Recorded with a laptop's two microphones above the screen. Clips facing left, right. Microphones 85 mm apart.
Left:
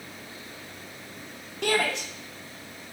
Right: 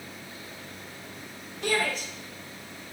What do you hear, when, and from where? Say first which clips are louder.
1.6 s a shout: left 2 dB; 75° left (ahead or behind), 2.5 m; by 2.9 s 65° left (ahead or behind), 1.2 m